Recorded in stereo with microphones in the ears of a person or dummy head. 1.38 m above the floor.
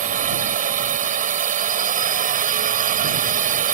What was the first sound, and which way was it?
A drone, 45° right (ahead or behind).